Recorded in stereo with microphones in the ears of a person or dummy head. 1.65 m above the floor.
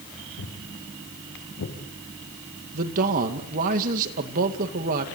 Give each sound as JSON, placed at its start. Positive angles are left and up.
{"t": 0.4, "sound": "footsteps", "side_deg": 65, "distance_m": 4.5}
{"t": 2.7, "sound": "a man speaking", "side_deg": -45, "distance_m": 2.0}